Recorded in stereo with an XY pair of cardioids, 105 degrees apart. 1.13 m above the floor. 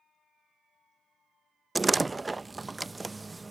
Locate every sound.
1.8 s a door slam: 20° right